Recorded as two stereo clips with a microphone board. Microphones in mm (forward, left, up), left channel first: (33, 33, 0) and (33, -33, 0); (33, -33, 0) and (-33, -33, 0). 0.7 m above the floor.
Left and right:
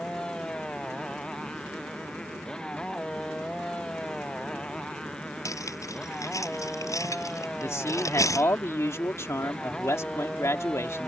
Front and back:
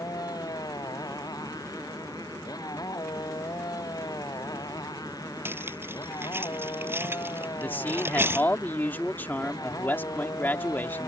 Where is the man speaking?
55° left.